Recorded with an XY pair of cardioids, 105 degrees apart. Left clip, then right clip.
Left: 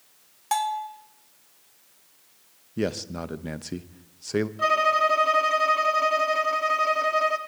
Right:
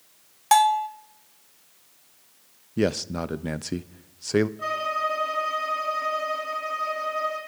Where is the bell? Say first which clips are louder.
Right 8 dB; 45° right, 0.8 m.